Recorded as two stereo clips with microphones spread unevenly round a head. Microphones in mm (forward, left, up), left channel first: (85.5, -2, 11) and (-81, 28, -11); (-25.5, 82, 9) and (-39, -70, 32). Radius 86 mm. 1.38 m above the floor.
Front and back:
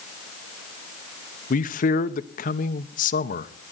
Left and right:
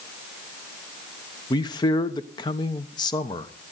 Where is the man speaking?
30° left, 0.9 m.